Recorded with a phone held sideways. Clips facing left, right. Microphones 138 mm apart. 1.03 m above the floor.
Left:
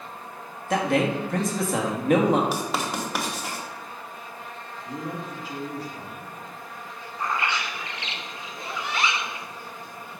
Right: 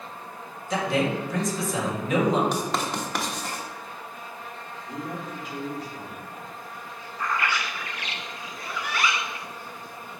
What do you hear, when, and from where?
0.7 s a man speaking: 60° left (ahead or behind), 1.4 m
2.5 s writing: 5° left (ahead or behind), 1.2 m
4.8 s a man speaking: 35° left (ahead or behind), 2.5 m
7.2 s a bird: 25° left (ahead or behind), 0.6 m